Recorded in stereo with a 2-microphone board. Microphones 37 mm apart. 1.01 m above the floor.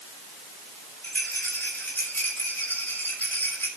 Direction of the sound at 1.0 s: 75° left (ahead or behind).